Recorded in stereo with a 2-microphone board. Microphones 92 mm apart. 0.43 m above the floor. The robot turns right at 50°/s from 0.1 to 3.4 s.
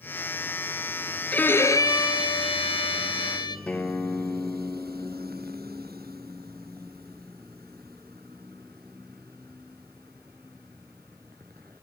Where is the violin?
15° left, 1.1 m; by 3.6 s 120° left, 1.1 m.